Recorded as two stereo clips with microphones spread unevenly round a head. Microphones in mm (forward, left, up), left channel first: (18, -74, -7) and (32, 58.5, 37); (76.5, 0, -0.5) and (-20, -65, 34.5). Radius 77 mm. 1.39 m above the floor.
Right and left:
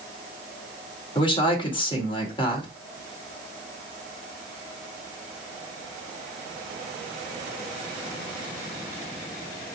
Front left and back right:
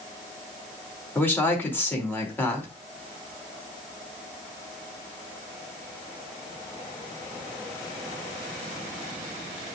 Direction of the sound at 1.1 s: 40° right.